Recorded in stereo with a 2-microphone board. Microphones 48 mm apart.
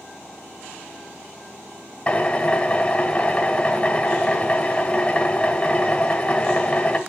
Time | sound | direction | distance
2.1 | a drill | 25° left (ahead or behind) | 1.6 m